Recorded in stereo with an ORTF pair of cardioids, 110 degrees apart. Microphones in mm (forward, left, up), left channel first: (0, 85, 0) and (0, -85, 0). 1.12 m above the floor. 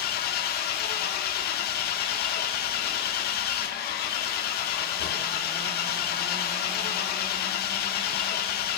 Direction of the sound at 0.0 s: 70° left.